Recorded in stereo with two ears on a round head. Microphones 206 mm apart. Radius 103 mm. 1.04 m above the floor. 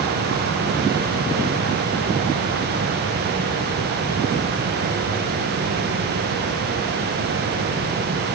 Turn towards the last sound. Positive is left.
No sound to turn to.